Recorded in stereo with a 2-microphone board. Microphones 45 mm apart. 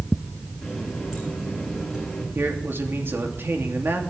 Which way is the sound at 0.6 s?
10° right (ahead or behind).